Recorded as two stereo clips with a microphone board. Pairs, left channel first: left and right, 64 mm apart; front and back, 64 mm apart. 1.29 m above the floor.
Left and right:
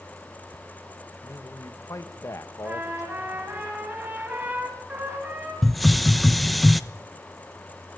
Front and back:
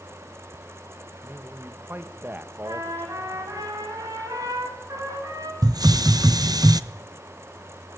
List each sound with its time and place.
1.2 s a man speaking: 125° left, 1.7 m
2.6 s a trumpet: 155° right, 8 m
5.6 s a hiss: straight behind, 0.9 m